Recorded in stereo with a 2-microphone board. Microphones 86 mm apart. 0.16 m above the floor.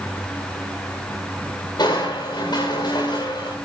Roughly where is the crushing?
Left.